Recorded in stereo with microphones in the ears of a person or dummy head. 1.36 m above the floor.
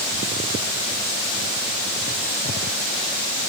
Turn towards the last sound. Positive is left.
No sound to turn to.